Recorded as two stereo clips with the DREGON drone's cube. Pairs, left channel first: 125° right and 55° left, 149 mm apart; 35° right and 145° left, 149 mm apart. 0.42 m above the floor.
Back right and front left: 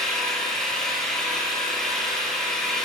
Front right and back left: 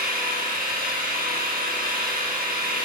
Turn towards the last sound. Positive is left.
turn(degrees=150)